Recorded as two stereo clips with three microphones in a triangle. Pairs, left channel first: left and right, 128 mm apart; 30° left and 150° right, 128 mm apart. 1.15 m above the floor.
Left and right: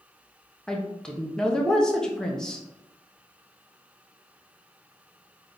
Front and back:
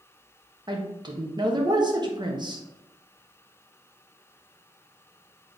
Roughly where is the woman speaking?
Behind.